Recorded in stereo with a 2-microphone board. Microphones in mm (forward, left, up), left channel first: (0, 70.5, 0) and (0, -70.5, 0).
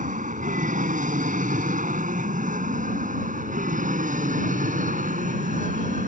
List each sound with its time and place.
0.0 s an aircraft: 65° right (ahead or behind)